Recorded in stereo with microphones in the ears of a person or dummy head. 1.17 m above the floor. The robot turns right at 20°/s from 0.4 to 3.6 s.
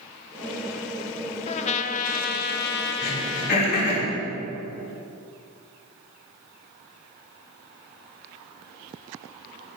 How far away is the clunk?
No clunk in this recording.